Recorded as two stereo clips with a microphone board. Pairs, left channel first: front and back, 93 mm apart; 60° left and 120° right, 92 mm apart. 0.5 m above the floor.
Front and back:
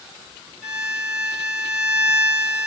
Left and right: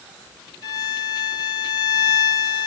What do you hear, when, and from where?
0.6 s a violin: 95° left, 2 m